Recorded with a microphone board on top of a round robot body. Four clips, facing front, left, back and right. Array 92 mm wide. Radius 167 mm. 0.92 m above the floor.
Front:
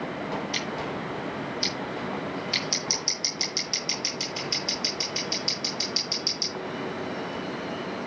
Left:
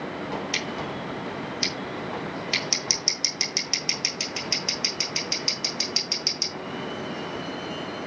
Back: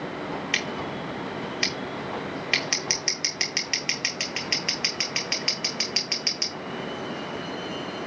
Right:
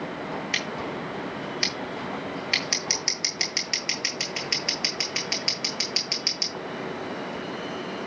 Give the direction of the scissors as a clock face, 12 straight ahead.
5 o'clock.